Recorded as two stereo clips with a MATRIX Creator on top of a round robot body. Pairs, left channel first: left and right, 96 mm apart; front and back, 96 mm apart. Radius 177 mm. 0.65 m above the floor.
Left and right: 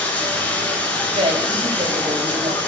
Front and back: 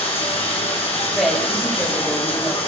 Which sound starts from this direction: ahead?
Running water, at 0.0 s.